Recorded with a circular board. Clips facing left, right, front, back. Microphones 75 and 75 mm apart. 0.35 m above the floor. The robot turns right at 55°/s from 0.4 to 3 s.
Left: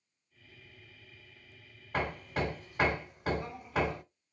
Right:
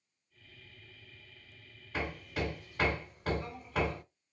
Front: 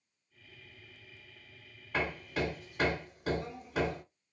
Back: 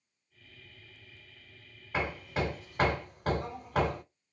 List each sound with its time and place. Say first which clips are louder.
1.9 s hammering: left 3 dB, back 1 dB; 110° left, 1.1 m; by 4.0 s 165° left, 1.1 m